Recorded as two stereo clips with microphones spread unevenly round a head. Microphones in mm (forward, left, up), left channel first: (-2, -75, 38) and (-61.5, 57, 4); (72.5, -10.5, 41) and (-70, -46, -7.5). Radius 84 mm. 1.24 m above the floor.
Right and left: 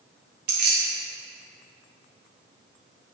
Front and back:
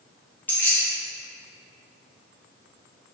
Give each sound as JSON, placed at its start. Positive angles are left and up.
{"t": 0.5, "sound": "keys jangling", "azimuth_deg": 95, "distance_m": 1.1}